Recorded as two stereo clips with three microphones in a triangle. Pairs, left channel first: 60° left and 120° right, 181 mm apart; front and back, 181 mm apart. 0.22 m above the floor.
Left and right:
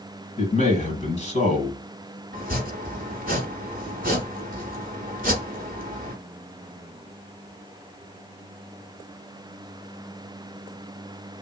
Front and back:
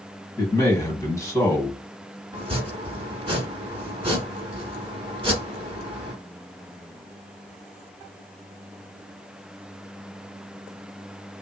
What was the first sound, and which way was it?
A man speaking, 60° left.